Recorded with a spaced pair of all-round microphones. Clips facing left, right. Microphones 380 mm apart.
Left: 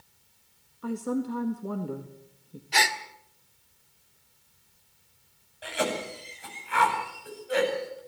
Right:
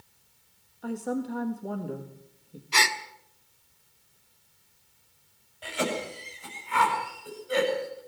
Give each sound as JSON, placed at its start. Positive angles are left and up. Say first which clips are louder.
{"t": 0.8, "sound": "a man speaking", "louder": "left 2 dB", "side_deg": 10, "distance_m": 1.7}
{"t": 2.7, "sound": "a gasp", "louder": "left 1 dB", "side_deg": -15, "distance_m": 1.3}
{"t": 5.6, "sound": "a cough", "louder": "even", "side_deg": -5, "distance_m": 9.0}